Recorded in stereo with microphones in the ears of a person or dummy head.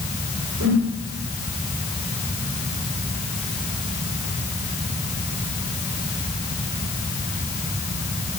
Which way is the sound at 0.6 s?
85° right.